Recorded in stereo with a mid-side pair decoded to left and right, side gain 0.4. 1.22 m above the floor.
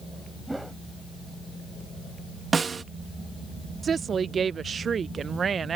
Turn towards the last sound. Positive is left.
turn(degrees=-50)